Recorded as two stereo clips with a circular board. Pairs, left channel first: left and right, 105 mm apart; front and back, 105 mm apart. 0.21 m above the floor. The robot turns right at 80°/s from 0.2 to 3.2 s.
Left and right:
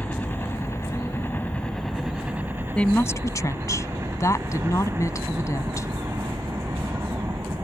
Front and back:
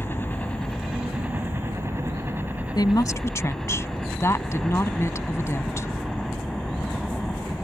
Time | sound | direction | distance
0.0 | a helicopter | 40° left | ?
2.8 | a woman speaking | 15° left | ?